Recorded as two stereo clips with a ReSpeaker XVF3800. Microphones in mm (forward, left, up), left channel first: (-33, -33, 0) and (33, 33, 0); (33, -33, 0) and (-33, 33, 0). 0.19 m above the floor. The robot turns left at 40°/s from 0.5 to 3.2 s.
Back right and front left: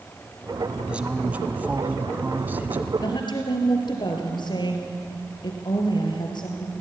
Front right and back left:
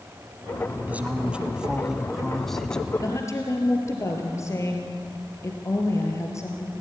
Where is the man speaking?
100° left, 1.0 m; by 2.9 s 20° left, 1.0 m.